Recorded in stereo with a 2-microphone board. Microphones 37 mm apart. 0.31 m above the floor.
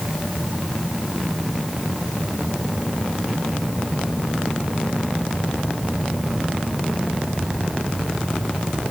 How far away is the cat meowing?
No cat meowing in this recording.